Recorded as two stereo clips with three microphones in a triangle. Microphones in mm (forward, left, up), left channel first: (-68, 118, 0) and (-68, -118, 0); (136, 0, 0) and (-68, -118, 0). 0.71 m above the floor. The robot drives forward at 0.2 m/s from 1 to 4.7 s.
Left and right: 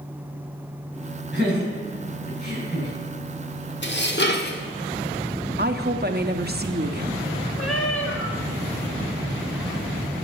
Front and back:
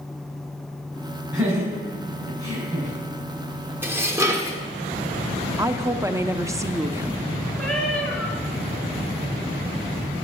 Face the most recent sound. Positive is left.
turn(degrees=115)